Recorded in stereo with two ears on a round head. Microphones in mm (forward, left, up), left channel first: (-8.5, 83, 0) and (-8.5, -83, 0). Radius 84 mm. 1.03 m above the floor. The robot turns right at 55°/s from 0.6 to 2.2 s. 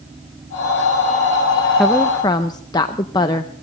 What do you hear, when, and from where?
1.8 s a woman speaking: centre (ahead or behind), 0.5 m; by 3.6 s 20° left (ahead or behind), 0.5 m